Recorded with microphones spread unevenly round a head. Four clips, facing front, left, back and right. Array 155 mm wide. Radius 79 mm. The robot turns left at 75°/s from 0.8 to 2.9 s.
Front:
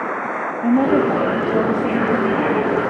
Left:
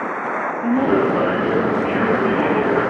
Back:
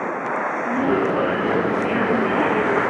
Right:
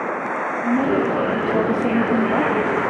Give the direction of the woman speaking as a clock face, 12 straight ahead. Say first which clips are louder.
Left 3 dB, front 6 dB; 11 o'clock.